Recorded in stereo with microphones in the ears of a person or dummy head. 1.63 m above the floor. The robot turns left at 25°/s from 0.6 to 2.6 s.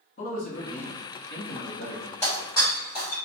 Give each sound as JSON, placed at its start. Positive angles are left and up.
{"t": 0.2, "sound": "a man speaking", "azimuth_deg": 130, "distance_m": 1.1}
{"t": 2.2, "sound": "breaking glass", "side_deg": 15, "distance_m": 1.0}